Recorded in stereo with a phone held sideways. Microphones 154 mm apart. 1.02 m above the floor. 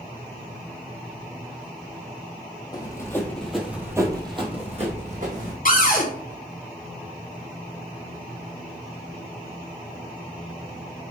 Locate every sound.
2.7 s running footsteps: 25° left (ahead or behind), 1.4 m; by 5.5 s 55° right (ahead or behind), 1.8 m
5.7 s a cupboard door: 60° left (ahead or behind), 0.8 m